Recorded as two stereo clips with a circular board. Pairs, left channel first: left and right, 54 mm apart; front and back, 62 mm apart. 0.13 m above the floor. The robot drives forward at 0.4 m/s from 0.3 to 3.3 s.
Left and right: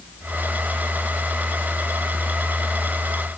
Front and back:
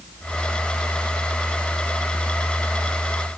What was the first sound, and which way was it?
Only background noise.